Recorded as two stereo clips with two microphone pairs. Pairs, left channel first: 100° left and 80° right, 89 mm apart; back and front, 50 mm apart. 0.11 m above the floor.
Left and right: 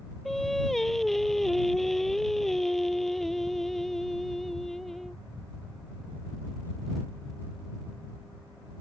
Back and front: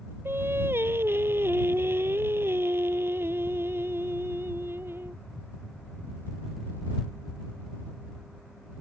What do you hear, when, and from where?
0.2 s singing: 15° left